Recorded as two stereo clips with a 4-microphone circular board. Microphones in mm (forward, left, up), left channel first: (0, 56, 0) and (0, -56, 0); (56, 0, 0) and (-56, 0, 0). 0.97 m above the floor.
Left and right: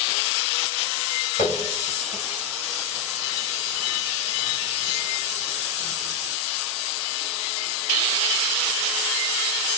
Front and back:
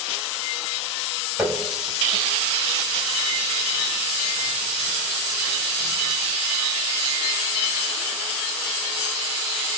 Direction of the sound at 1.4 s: 95° left.